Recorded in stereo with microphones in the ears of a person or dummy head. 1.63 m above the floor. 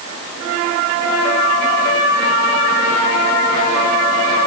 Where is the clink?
I don't hear a clink.